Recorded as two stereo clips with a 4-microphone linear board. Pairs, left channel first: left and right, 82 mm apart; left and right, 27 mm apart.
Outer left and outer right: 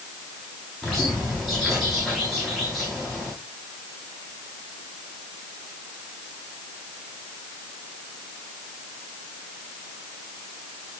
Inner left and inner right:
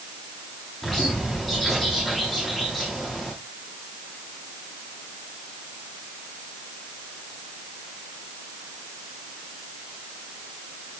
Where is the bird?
Centre (ahead or behind), 9.5 m.